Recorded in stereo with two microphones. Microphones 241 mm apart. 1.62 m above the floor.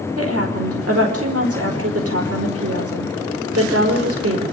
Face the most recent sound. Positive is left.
turn(degrees=-75)  # may be behind; listen again after turning